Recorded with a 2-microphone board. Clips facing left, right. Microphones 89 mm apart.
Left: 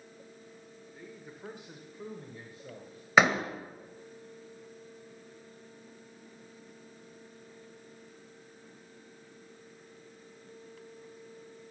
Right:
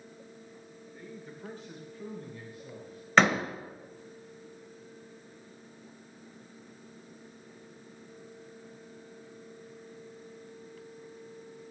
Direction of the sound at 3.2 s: 10° left (ahead or behind).